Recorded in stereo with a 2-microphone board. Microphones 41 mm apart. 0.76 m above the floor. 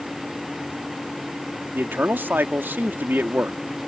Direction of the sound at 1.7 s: 55° right (ahead or behind).